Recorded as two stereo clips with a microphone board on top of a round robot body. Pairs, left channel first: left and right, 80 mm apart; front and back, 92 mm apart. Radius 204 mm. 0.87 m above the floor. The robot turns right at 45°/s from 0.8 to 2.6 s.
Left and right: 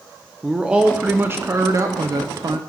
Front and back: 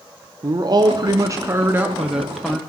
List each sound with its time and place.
0.4 s a man speaking: 165° right, 0.9 m; by 2.6 s 80° right, 0.9 m